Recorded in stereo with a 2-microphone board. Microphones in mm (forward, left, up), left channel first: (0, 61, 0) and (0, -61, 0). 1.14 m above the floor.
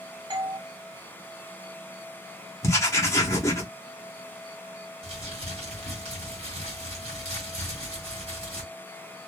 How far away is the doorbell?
About 0.9 m.